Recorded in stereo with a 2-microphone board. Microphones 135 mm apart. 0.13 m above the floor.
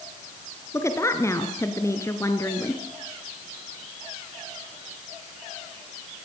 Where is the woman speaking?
20° left (ahead or behind), 2 m.